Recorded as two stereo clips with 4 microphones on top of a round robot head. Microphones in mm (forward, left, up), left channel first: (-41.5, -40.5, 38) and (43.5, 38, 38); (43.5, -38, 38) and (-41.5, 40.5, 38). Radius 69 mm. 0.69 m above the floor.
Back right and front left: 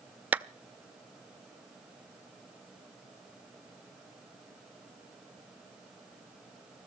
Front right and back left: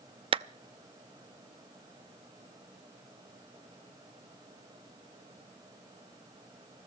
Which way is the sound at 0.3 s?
115° left.